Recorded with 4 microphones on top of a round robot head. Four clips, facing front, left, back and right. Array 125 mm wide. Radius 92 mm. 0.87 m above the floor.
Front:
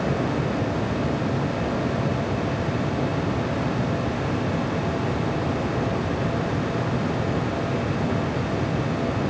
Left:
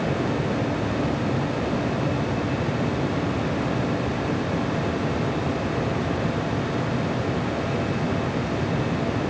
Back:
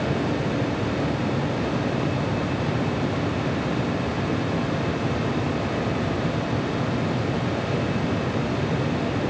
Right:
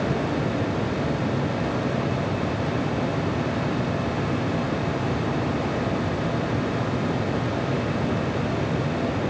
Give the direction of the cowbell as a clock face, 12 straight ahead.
No cowbell in this recording.